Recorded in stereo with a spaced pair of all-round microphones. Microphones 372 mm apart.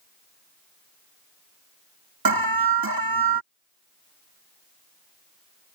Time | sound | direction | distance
2.2 | an alarm | 65° right (ahead or behind) | ?